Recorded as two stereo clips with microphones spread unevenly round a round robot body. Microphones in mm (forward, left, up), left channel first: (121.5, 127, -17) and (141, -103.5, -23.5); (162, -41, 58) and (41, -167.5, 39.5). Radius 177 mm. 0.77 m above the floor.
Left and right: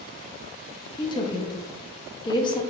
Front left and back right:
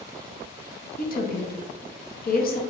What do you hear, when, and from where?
1.0 s a woman speaking: 25° left, 1.1 m